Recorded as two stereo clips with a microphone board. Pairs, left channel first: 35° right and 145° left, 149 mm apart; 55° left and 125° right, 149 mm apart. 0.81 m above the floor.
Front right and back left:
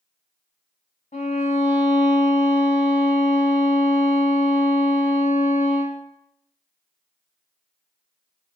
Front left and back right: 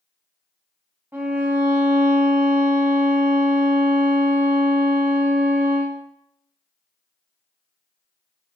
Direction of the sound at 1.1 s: 50° right.